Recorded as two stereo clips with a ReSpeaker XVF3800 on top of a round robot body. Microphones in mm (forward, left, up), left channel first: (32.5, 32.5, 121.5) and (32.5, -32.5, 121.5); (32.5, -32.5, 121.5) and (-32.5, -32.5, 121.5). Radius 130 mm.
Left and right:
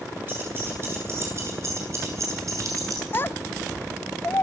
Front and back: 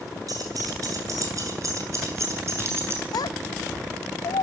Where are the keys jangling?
150° right, 9.5 m; by 3.0 s 130° right, 8.5 m.